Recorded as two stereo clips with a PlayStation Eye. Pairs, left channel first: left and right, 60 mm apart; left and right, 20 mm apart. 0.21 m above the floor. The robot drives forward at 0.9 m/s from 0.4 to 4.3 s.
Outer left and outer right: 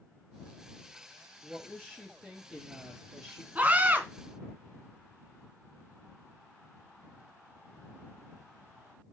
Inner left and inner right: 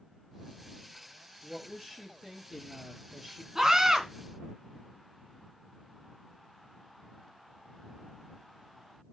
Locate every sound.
1.4 s a woman speaking: 5° left (ahead or behind), 5 m
3.5 s a scream: 25° right (ahead or behind), 3 m; by 4.0 s 30° right (ahead or behind), 2.5 m